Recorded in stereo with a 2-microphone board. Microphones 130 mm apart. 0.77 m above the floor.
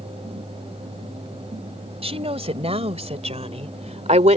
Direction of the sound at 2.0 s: 50° right (ahead or behind).